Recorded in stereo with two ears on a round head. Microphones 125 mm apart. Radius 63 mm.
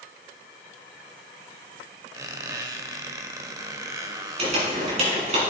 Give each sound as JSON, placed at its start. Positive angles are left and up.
{"t": 2.1, "sound": "a squeak", "side_deg": -25, "distance_m": 1.1}
{"t": 4.4, "sound": "crumpling", "side_deg": -50, "distance_m": 6.0}